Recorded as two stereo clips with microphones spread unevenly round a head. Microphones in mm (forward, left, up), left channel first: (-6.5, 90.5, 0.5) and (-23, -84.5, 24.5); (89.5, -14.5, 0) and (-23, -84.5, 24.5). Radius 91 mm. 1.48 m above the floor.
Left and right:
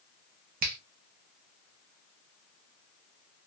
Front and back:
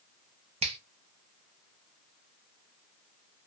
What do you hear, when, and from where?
0.6 s a finger snap: 125° right, 0.6 m